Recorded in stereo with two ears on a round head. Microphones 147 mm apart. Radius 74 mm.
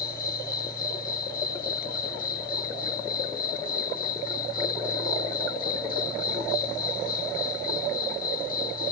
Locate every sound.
0.0 s an insect: 55° left (ahead or behind)